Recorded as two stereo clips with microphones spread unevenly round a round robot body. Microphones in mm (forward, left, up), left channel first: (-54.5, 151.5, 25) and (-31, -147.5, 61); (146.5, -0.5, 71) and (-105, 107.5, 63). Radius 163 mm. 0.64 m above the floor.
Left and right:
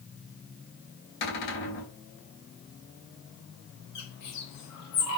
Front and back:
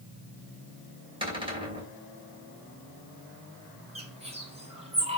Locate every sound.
1.2 s a cupboard door: 85° left, 3.5 m
4.0 s a bird: 90° left, 2.5 m